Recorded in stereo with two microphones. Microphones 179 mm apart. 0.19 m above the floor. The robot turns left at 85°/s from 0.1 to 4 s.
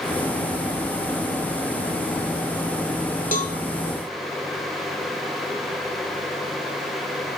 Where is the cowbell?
55° left (ahead or behind), 1.0 m; by 3.5 s 45° left (ahead or behind), 1.0 m.